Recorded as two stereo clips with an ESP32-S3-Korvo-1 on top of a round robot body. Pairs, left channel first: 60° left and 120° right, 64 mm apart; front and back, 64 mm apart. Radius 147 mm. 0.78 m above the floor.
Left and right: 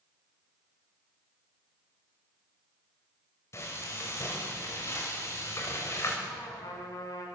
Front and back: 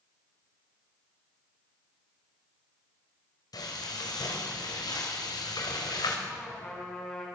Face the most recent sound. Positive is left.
turn(degrees=75)